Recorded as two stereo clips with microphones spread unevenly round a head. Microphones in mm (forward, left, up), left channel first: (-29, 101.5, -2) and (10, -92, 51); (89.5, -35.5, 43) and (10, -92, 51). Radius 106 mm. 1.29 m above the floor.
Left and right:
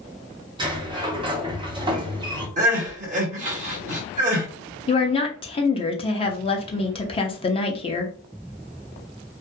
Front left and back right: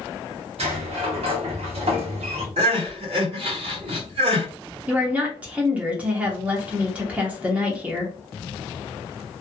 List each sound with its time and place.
0.6 s a sliding door: 150° right, 0.9 m
2.6 s crying: 135° right, 1.6 m
4.9 s a woman speaking: 135° left, 0.7 m